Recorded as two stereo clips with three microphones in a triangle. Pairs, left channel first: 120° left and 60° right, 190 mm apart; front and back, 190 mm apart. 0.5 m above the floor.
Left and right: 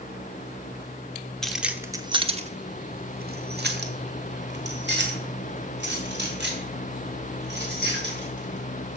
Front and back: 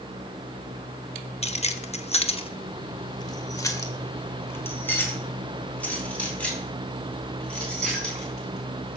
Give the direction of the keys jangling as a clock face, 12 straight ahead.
11 o'clock.